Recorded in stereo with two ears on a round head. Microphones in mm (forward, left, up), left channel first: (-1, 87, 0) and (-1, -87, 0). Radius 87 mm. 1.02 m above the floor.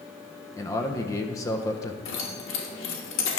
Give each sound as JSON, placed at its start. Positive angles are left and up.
{"t": 0.6, "sound": "a man speaking", "side_deg": 15, "distance_m": 0.7}
{"t": 2.0, "sound": "keys jangling", "side_deg": 70, "distance_m": 1.4}